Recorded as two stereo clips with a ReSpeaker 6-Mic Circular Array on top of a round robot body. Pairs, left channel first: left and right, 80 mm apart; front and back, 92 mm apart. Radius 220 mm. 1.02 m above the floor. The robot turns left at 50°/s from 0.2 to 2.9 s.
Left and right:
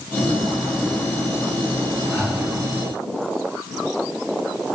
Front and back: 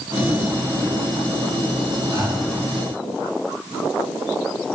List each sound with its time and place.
2.1 s breathing: 150° left, 3.5 m; by 2.5 s 125° left, 3.5 m